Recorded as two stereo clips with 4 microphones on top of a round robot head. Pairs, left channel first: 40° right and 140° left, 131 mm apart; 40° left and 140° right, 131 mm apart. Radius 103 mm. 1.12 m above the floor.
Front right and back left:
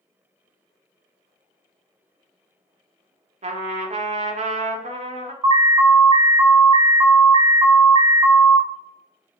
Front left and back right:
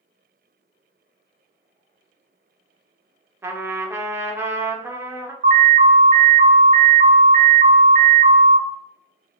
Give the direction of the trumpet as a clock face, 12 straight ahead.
7 o'clock.